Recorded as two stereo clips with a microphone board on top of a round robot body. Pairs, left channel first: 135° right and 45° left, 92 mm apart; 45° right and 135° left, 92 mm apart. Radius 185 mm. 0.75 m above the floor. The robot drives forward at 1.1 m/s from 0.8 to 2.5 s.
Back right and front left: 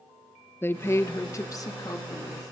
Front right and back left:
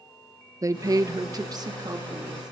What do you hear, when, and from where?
0.6 s a woman speaking: 170° left, 0.9 m; by 2.5 s 175° left, 2.5 m